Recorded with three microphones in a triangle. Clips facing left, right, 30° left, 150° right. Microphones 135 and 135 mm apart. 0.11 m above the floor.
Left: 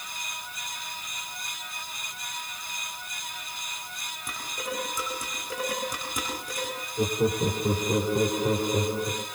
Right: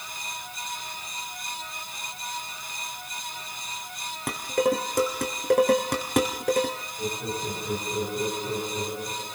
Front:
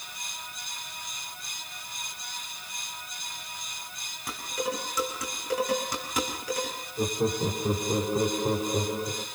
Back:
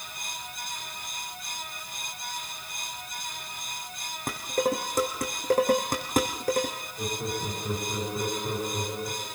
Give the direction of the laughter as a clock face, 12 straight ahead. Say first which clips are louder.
Left 8 dB, front 6 dB; 9 o'clock.